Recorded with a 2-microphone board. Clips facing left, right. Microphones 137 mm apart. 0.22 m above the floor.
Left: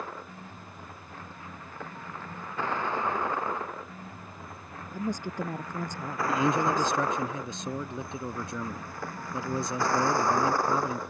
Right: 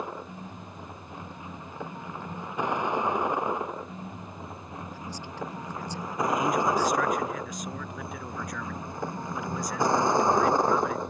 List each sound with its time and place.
0.0 s a vehicle: 15° right (ahead or behind); by 11.1 s 20° right (ahead or behind)
4.9 s a woman speaking: 50° left (ahead or behind)
6.3 s a man speaking: 30° left (ahead or behind)